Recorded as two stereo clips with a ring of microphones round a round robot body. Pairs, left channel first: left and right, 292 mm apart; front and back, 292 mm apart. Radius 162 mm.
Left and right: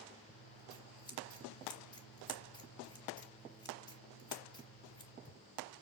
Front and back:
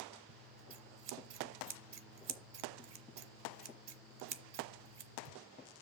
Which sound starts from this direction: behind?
Scissors, at 0.3 s.